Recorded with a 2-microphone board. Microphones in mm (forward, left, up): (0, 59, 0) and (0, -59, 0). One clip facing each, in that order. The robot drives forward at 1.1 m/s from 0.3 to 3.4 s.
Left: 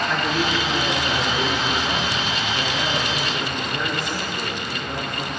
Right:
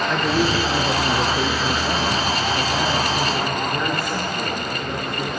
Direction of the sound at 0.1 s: 20° right (ahead or behind).